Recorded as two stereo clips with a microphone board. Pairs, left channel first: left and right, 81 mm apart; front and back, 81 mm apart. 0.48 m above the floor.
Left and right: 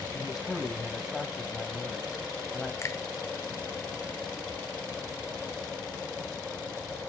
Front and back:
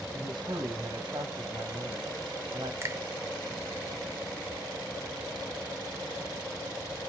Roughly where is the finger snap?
Behind left.